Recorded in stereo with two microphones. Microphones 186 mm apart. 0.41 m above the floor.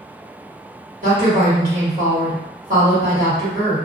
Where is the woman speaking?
50° right (ahead or behind), 1.6 m.